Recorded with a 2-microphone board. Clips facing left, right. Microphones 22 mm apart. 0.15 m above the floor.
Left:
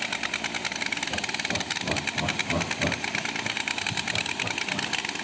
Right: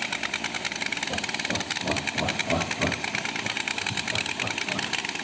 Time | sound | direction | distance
1.1 | laughter | 55° right (ahead or behind) | 7 m